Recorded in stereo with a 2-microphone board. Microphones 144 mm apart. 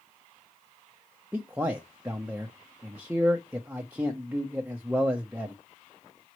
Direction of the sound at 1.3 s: 10° right (ahead or behind).